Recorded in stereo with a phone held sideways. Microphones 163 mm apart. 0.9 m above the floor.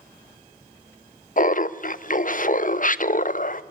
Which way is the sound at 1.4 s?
55° left (ahead or behind).